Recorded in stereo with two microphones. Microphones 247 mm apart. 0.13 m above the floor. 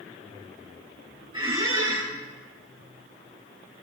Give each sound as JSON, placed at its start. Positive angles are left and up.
{"t": 1.3, "sound": "a squeak", "side_deg": -20, "distance_m": 6.0}